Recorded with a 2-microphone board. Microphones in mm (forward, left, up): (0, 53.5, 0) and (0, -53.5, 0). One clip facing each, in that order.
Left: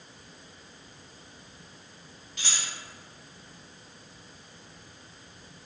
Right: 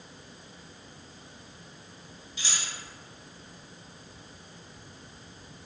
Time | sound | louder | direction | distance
2.4 | keys jangling | even | 60° left (ahead or behind) | 1.7 m